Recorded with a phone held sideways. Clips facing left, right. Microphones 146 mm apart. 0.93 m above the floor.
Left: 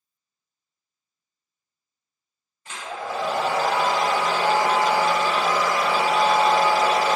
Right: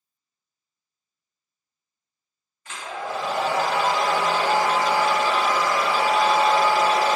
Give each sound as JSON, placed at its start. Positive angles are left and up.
{"t": 2.6, "sound": "a hair dryer", "side_deg": 30, "distance_m": 1.6}